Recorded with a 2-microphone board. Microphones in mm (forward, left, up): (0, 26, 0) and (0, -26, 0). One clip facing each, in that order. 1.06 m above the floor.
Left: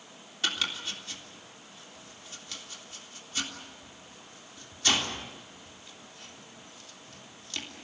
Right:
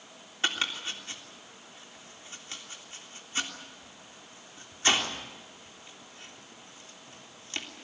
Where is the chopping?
30° right (ahead or behind), 3.5 m.